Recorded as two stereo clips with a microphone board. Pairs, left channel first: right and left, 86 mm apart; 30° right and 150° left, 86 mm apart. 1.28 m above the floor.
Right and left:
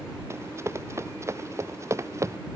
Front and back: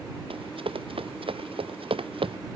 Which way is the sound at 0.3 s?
150° left.